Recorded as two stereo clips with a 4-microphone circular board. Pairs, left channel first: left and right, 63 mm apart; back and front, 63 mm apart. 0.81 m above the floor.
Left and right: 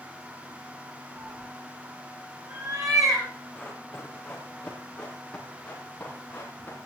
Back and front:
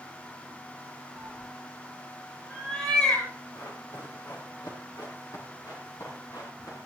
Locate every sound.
1.1 s a cat meowing: 100° right, 7 m; by 3.3 s 110° right, 9.5 m
3.5 s running footsteps: 170° left, 4.5 m; by 6.8 s 155° left, 6 m